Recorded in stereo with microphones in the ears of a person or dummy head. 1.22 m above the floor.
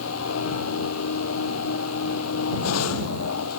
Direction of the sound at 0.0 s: 90° left.